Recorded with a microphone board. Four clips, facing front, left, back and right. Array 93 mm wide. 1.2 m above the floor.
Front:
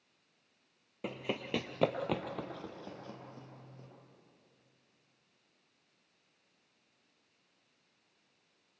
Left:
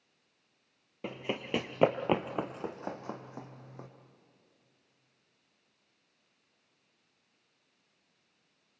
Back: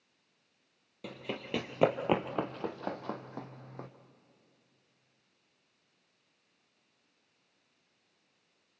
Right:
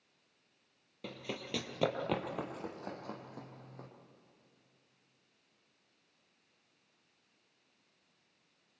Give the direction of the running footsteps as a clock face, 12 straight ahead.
10 o'clock.